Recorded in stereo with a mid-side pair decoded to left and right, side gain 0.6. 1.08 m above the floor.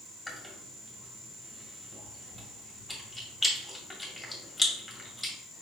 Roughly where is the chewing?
Ahead.